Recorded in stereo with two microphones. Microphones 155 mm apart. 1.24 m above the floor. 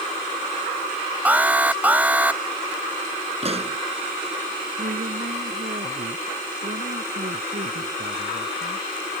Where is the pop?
40° right (ahead or behind).